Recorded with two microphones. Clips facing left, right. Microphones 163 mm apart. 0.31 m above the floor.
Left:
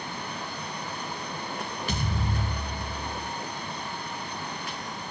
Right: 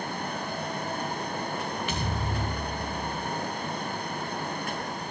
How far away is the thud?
About 4 m.